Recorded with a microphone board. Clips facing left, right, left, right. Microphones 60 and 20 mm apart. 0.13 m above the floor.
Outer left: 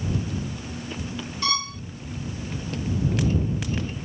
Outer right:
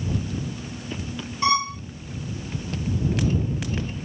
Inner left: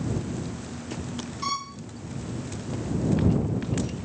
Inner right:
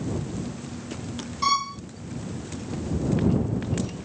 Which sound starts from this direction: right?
A violin, at 1.4 s.